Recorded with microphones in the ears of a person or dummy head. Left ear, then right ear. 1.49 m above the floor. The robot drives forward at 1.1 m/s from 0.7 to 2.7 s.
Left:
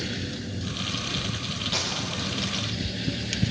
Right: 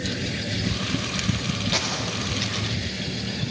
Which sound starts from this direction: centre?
A gunshot, at 1.7 s.